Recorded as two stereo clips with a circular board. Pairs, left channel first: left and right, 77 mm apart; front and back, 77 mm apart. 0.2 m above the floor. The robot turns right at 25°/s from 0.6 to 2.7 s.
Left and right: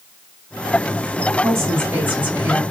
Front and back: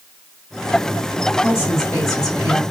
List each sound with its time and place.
1.4 s a woman speaking: 50° right, 2.5 m; by 2.6 s 20° right, 2.5 m